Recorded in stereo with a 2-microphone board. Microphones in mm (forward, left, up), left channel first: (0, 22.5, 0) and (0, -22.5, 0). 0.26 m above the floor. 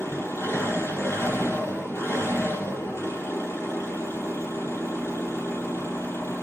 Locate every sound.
0.0 s an engine running: 80° left, 7 m